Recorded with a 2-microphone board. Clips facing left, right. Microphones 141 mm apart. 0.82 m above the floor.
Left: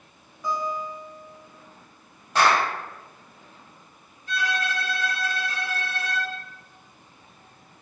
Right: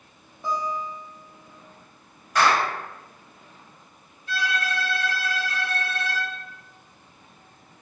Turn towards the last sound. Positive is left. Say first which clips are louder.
# even
turn(degrees=50)  # may be behind; listen again after turning